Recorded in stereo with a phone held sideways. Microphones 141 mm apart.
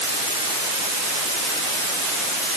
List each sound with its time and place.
Only background noise.